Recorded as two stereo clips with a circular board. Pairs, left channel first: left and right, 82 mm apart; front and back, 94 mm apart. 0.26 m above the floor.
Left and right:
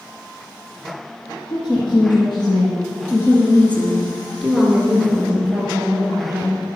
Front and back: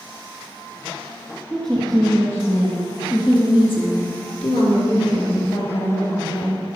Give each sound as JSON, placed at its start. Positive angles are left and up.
{"t": 1.5, "sound": "a woman speaking", "azimuth_deg": 85, "distance_m": 3.5}